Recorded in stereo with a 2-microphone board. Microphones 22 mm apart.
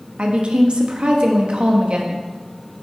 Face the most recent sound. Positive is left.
turn(degrees=-50)  # may be behind; listen again after turning